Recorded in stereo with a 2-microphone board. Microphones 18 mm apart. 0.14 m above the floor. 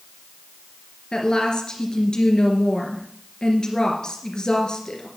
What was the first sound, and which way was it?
A woman speaking, 55° left (ahead or behind).